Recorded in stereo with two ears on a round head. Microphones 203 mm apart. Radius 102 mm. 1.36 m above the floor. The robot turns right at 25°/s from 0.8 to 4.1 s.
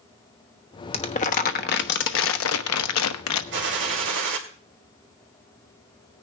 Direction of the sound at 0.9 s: 25° left.